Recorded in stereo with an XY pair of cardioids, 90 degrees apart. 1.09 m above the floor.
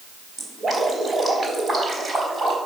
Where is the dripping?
40° right, 4 m.